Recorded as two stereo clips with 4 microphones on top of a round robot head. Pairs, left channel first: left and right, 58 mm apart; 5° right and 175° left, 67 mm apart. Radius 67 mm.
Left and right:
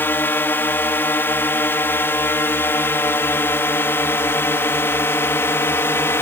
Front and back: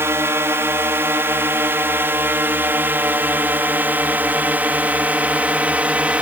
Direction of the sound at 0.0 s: 135° left.